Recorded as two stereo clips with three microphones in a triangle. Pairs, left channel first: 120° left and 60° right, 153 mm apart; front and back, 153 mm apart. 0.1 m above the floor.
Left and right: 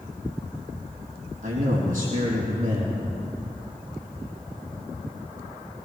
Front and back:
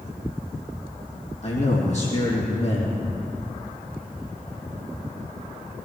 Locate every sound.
1.4 s a man speaking: 40° right, 4 m